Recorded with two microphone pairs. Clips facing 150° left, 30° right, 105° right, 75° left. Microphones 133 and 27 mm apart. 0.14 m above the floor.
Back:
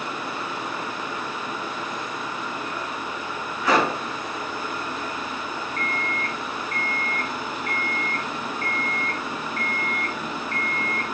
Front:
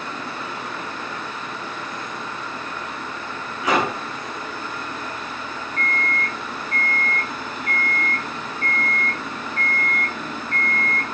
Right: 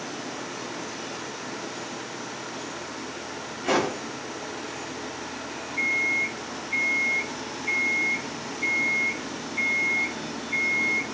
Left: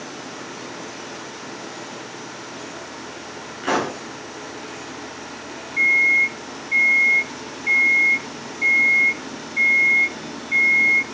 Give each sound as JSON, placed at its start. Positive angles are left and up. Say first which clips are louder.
{"t": 3.6, "sound": "a pop", "louder": "even, left 2 dB", "azimuth_deg": 40, "distance_m": 6.5}
{"t": 5.8, "sound": "an alarm clock", "louder": "front 5 dB, left 9 dB", "azimuth_deg": 25, "distance_m": 5.0}